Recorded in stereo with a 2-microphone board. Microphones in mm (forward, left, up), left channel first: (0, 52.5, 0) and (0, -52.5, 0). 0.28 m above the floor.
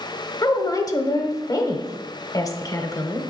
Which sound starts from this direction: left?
A woman speaking, at 0.4 s.